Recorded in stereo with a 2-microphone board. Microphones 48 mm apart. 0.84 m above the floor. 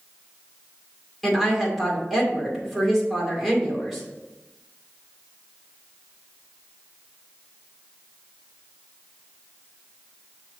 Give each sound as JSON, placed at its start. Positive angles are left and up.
{"t": 1.2, "sound": "a woman speaking", "side_deg": 0, "distance_m": 2.0}